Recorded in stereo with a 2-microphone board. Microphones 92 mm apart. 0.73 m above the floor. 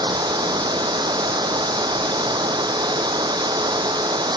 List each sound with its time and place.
0.0 s running water: 50° right (ahead or behind)